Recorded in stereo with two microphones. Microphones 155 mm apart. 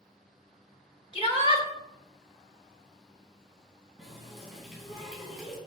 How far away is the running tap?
About 3 m.